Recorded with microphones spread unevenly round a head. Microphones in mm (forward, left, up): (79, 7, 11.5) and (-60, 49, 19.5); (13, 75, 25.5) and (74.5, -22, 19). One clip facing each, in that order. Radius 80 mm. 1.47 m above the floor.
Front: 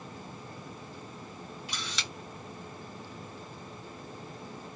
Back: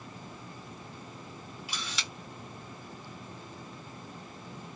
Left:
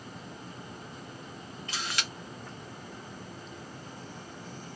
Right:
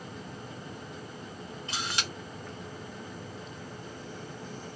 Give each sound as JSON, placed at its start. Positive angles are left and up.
{"t": 1.7, "sound": "a camera shutter", "azimuth_deg": -120, "distance_m": 0.8}